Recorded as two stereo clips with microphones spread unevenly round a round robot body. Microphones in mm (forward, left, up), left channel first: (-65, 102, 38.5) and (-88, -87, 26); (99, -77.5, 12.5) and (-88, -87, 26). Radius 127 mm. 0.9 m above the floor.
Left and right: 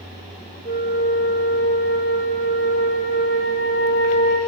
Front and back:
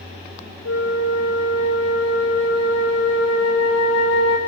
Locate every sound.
0.7 s a flute: 25° left, 3 m